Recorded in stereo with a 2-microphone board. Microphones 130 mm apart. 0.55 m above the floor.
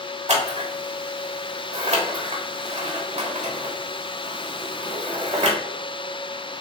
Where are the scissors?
60° right (ahead or behind), 1.0 m.